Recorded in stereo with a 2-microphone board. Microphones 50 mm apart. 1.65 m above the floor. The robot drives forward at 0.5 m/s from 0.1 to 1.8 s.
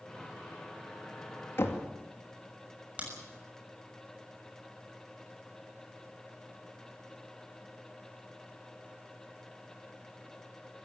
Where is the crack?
25° right (ahead or behind), 6.5 m.